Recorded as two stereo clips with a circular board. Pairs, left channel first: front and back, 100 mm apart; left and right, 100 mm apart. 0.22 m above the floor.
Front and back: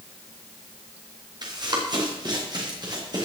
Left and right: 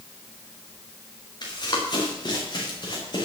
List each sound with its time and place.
1.4 s running footsteps: 135° left, 5.5 m